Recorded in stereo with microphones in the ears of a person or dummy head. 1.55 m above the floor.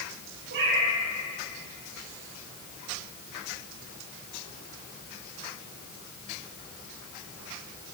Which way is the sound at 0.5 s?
55° right (ahead or behind).